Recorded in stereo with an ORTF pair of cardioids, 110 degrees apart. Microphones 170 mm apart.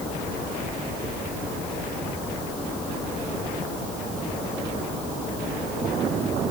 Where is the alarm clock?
No alarm clock in this recording.